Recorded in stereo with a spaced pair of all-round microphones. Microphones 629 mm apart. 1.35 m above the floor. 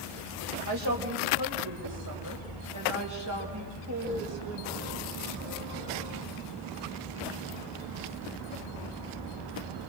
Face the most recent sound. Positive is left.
turn(degrees=-25)  # may be behind; listen again after turning